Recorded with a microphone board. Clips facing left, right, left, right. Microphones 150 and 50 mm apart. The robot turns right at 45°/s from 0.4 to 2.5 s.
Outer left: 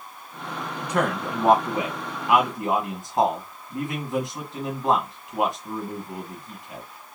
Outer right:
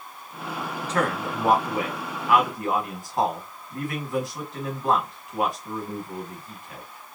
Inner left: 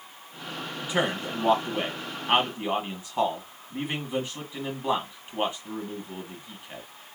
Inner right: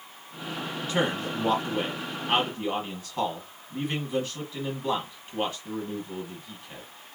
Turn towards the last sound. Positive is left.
turn(degrees=20)  # may be behind; listen again after turning